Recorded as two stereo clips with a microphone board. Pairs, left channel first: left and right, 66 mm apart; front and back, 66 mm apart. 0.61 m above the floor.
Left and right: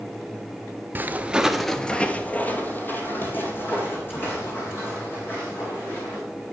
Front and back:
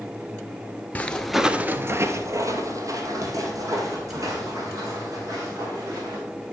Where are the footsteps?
50° right, 0.7 m; by 6.2 s 145° left, 4 m.